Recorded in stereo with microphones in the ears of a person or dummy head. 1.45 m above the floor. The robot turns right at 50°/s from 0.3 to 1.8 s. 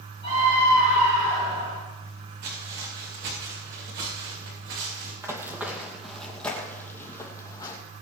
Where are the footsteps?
50° right (ahead or behind), 6 m; by 5.1 s 60° right (ahead or behind), 7 m.